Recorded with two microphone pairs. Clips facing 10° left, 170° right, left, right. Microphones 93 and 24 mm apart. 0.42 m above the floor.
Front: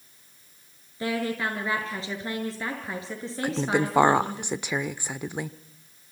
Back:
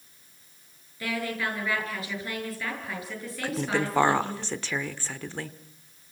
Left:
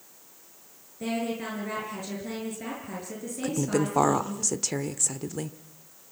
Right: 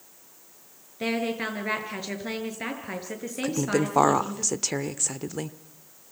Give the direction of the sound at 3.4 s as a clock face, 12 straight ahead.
1 o'clock.